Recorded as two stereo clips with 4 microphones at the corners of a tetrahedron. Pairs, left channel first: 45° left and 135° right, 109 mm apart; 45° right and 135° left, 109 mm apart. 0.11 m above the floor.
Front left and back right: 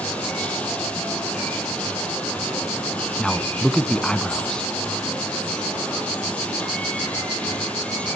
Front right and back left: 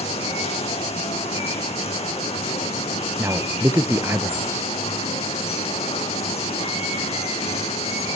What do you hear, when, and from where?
0.0 s running water: 35° right, 5 m
3.2 s a man speaking: 120° left, 1.3 m